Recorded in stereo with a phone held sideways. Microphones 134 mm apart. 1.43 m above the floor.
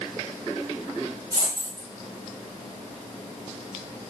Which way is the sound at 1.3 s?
20° right (ahead or behind).